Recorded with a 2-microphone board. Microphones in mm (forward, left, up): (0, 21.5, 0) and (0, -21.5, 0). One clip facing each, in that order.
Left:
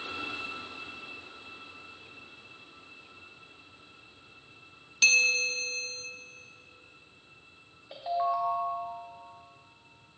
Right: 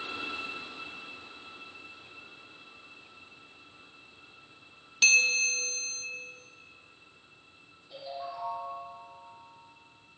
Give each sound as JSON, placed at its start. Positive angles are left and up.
{"t": 5.0, "sound": "a bell", "side_deg": 0, "distance_m": 0.7}
{"t": 7.9, "sound": "a ringtone", "side_deg": 80, "distance_m": 1.2}